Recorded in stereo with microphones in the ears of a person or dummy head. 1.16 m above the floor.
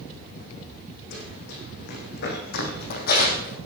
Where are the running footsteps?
60° left (ahead or behind), 4.5 m; by 3.6 s 45° left (ahead or behind), 3 m.